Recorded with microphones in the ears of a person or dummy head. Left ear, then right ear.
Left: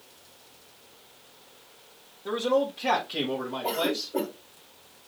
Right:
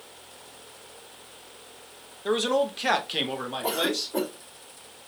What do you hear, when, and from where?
2.2 s a man speaking: 45° right (ahead or behind), 0.7 m; by 4.1 s 50° right (ahead or behind), 1.7 m
3.6 s a cough: 60° right (ahead or behind), 4 m